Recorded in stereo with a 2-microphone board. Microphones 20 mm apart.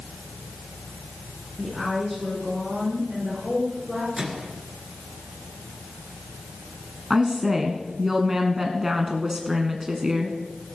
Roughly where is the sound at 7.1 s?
Centre.